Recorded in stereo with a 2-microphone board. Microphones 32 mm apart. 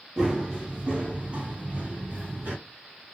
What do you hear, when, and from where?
0.2 s running footsteps: 15° right (ahead or behind), 1.7 m; by 2.5 s 55° right (ahead or behind), 2.5 m